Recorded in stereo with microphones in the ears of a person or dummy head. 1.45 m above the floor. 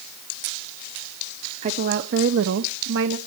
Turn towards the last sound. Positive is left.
turn(degrees=-65)  # may be behind; listen again after turning